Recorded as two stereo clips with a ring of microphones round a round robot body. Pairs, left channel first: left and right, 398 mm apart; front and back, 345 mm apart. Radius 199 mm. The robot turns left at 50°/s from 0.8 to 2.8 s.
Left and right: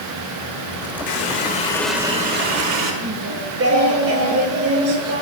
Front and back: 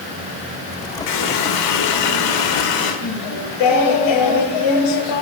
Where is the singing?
35° right, 1.9 m.